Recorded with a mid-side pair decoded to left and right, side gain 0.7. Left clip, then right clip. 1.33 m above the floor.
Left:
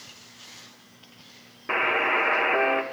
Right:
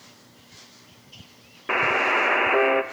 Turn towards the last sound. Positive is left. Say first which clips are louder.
# right 2 dB
turn(degrees=-15)